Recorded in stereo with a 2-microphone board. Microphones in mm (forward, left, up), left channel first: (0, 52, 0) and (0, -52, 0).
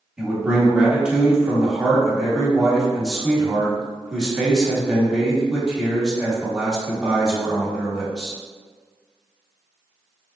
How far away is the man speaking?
About 1.0 m.